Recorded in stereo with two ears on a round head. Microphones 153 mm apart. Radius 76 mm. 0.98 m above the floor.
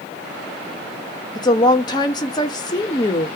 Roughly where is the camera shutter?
No camera shutter in this recording.